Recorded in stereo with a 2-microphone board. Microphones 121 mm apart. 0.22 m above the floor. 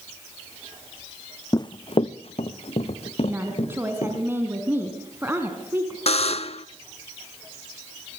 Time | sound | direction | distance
1.5 | running footsteps | 30° left (ahead or behind) | 0.5 m
3.3 | a woman speaking | 20° right (ahead or behind) | 2.5 m
6.1 | a buzzer | 60° left (ahead or behind) | 0.6 m